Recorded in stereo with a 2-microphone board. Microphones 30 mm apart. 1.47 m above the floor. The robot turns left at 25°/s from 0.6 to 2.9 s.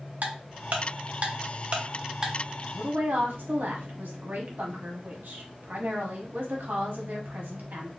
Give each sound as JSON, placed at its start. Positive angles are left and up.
{"t": 0.2, "sound": "ticking", "side_deg": -65, "distance_m": 0.8}
{"t": 2.7, "sound": "a woman speaking", "side_deg": -85, "distance_m": 1.1}